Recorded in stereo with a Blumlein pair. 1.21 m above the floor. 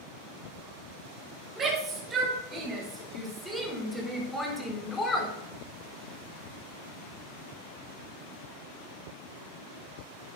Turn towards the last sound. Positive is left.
turn(degrees=20)